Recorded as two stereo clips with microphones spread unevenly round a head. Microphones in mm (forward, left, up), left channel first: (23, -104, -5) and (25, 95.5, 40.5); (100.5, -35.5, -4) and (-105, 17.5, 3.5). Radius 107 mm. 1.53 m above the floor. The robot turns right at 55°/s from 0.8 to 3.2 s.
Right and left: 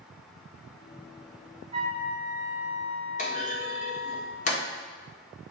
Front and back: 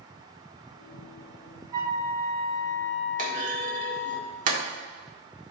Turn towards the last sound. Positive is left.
turn(degrees=-150)